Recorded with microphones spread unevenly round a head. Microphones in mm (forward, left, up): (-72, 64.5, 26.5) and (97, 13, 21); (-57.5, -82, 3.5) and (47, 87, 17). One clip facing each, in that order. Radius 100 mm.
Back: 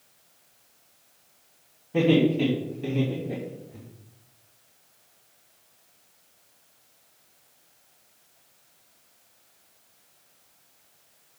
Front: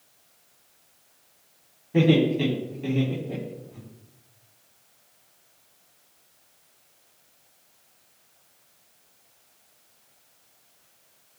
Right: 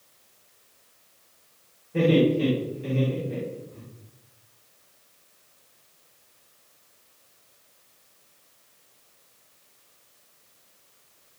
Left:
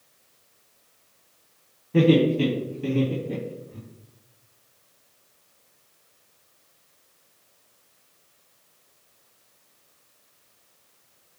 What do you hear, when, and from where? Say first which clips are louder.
1.9 s laughter: even, left 2 dB; 65° left, 4 m; by 3.8 s 100° left, 2.5 m